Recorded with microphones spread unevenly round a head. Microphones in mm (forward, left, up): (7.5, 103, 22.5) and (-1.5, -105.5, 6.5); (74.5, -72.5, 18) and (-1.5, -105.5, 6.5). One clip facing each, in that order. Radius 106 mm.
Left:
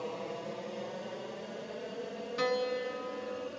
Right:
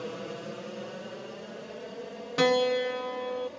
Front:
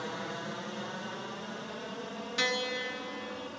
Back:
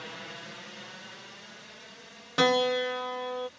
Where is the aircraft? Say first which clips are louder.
Right 2 dB, front 6 dB; 25° right; by 3.6 s 5° left.